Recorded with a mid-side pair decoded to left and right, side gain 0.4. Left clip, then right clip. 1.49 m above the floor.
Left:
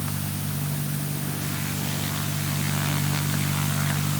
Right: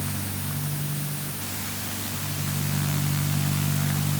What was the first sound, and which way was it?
Only background noise.